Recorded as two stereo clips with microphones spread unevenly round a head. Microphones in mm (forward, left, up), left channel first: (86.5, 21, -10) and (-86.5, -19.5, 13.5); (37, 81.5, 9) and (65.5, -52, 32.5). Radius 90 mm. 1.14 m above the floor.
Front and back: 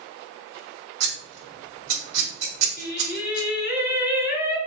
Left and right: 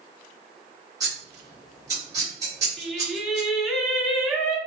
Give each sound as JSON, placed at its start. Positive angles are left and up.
{"t": 1.0, "sound": "scissors", "azimuth_deg": -150, "distance_m": 2.0}
{"t": 2.8, "sound": "singing", "azimuth_deg": 0, "distance_m": 0.8}